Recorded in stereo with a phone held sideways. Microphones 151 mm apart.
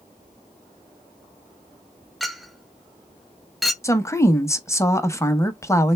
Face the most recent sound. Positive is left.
turn(degrees=20)  # may be behind; listen again after turning